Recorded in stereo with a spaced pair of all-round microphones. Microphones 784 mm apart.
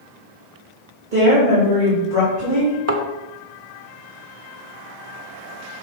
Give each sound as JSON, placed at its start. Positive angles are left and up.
{"t": 1.1, "sound": "a woman speaking", "side_deg": -85, "distance_m": 2.0}
{"t": 2.9, "sound": "a thud", "side_deg": -20, "distance_m": 1.2}